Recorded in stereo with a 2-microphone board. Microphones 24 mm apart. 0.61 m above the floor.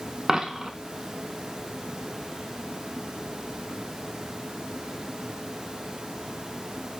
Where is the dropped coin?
25° right (ahead or behind), 0.5 m.